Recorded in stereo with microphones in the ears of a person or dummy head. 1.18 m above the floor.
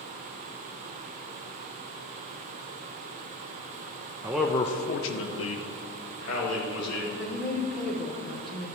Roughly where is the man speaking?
Centre.